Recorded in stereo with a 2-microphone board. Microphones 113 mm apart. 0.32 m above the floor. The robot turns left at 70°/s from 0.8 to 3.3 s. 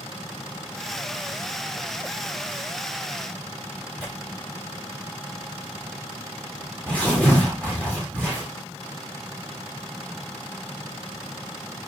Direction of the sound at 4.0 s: 10° left (ahead or behind).